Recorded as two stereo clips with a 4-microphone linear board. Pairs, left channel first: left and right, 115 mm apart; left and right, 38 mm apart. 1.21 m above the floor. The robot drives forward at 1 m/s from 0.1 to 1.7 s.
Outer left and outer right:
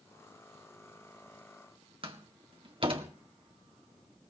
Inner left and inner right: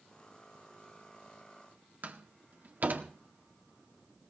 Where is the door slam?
50° right (ahead or behind), 1.9 m.